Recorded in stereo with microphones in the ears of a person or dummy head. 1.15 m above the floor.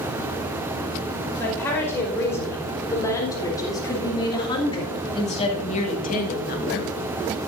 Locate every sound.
1.4 s a woman speaking: 10° left (ahead or behind), 5 m; by 6.9 s 60° left (ahead or behind), 1.4 m